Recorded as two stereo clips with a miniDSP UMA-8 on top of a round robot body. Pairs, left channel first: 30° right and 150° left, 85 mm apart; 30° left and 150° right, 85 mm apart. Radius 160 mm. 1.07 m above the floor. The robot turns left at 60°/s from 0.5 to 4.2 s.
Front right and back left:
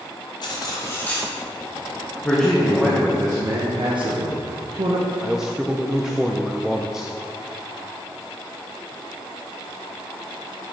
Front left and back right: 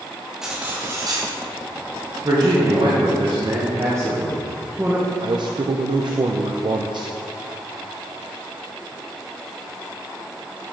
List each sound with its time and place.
0.4 s cutlery clinking: 65° right, 1.1 m; by 1.3 s 115° right, 1.1 m
2.2 s a man speaking: 100° right, 1.4 m; by 5.1 s 140° left, 1.4 m
5.2 s a man speaking: 125° right, 0.6 m